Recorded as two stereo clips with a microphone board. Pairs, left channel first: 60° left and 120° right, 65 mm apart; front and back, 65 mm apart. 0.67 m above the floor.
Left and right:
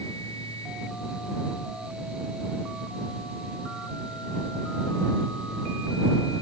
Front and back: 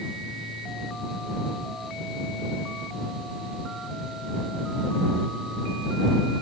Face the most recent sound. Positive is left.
No sound to turn to.